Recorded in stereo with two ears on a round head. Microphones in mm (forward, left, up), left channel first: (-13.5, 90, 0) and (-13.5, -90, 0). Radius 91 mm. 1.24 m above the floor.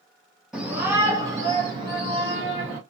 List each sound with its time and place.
0.5 s a shout: centre (ahead or behind), 0.9 m; by 2.8 s 65° right (ahead or behind), 1.3 m